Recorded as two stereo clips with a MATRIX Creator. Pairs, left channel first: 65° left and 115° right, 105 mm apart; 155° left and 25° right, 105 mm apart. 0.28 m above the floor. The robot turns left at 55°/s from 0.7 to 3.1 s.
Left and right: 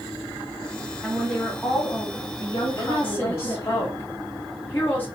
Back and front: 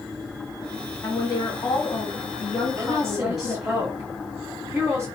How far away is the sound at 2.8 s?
About 1.0 m.